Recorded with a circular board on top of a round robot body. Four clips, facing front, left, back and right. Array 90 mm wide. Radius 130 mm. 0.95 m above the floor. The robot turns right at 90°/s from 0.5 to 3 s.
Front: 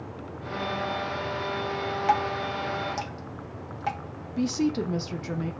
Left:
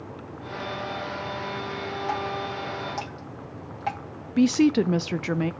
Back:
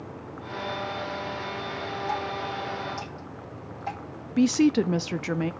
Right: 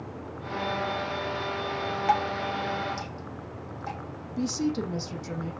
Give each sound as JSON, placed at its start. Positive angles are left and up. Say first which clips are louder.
{"t": 2.1, "sound": "dripping", "louder": "right 5 dB, front 7 dB", "azimuth_deg": -35, "distance_m": 1.6}
{"t": 4.4, "sound": "a woman speaking", "louder": "left 9 dB, back 5 dB", "azimuth_deg": 125, "distance_m": 0.5}